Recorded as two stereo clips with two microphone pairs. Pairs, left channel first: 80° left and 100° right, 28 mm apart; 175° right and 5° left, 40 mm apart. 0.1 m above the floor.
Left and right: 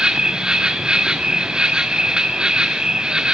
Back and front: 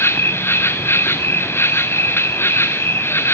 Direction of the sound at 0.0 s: 155° right.